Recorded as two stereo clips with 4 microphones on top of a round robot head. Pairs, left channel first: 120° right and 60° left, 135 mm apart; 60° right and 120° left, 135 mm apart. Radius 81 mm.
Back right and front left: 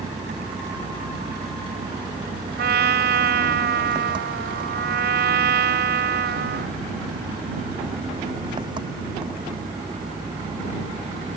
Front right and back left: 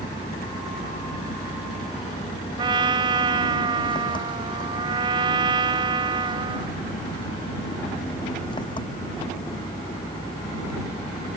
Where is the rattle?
I don't hear a rattle.